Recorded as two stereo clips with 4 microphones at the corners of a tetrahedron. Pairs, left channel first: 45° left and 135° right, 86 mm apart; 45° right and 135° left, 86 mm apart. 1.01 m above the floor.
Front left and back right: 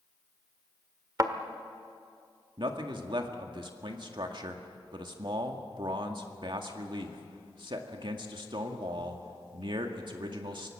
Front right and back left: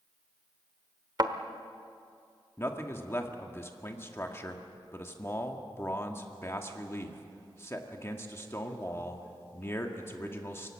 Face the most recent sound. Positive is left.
turn(degrees=-105)